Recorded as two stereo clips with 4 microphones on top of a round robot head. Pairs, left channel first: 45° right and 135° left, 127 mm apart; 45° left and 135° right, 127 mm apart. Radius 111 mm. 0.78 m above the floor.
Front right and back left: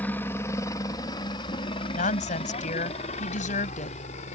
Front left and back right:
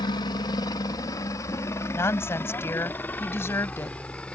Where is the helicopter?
25° left; by 4.3 s 35° right.